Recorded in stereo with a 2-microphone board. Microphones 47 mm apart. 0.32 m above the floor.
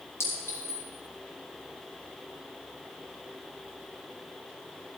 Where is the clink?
65° left (ahead or behind), 4.5 m.